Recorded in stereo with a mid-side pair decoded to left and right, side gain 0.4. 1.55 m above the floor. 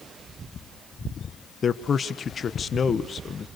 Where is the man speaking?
45° left, 1.3 m.